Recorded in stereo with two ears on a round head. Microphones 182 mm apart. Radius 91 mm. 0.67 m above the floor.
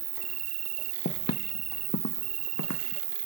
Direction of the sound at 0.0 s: 75° right (ahead or behind).